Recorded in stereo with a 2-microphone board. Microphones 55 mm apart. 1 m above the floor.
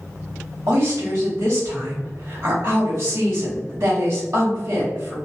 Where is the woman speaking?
65° right (ahead or behind), 1.7 m.